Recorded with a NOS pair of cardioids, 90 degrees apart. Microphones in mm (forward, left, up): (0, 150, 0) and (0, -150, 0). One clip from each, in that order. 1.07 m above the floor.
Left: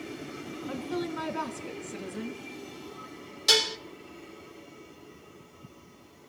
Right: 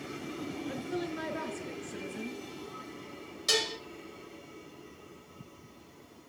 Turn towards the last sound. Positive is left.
turn(degrees=45)